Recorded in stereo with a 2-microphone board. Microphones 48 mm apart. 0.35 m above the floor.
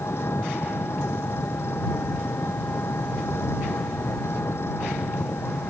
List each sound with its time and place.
0.0 s an engine running: 60° left (ahead or behind)